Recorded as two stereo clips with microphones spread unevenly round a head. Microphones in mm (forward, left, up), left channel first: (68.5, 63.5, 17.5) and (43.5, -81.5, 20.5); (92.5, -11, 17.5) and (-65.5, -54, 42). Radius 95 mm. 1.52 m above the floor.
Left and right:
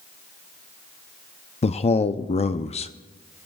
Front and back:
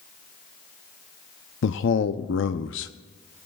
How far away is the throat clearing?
I don't hear throat clearing.